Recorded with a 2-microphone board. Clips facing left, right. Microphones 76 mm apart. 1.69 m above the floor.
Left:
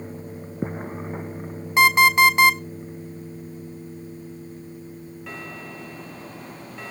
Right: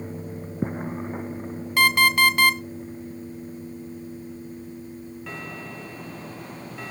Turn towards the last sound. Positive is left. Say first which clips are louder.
# left 4 dB
turn(degrees=20)  # may be behind; listen again after turning